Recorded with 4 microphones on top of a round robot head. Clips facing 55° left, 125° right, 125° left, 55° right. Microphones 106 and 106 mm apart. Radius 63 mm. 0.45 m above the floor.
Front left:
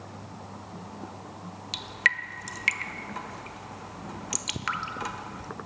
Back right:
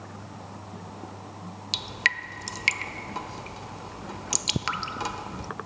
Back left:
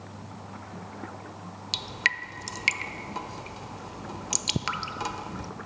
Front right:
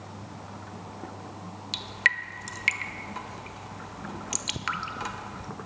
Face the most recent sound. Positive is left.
turn(degrees=180)